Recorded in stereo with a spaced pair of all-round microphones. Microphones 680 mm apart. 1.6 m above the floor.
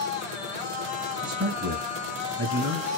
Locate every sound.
0.0 s a machine running: 85° left, 0.9 m
1.2 s a man speaking: 25° right (ahead or behind), 1.5 m